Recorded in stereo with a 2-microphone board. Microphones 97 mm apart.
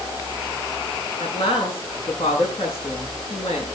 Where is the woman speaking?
80° left, 8.5 m.